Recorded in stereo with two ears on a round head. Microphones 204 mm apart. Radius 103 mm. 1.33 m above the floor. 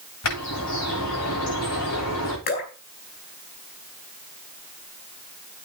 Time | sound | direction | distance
0.2 | a bird | 75° left (ahead or behind) | 9.5 m
2.5 | dripping | 45° left (ahead or behind) | 4 m